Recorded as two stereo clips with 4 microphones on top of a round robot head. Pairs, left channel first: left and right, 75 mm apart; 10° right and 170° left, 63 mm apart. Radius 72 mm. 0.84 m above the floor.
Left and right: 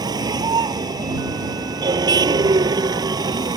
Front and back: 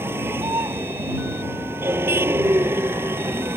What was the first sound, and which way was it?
A vehicle, 125° right.